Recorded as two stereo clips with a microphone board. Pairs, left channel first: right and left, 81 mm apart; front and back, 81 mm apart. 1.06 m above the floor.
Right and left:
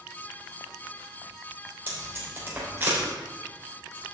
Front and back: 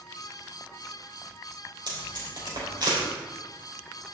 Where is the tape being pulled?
155° left, 3.5 m.